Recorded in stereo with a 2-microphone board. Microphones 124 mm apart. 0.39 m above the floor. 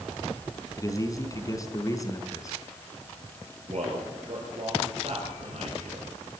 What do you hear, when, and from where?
0.8 s a man speaking: 30° left (ahead or behind), 3 m
3.7 s a man speaking: 60° right (ahead or behind), 8 m